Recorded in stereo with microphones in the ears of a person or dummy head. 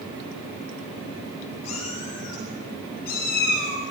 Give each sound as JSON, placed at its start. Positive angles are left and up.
{"t": 1.6, "sound": "a cat meowing", "side_deg": 40, "distance_m": 3.5}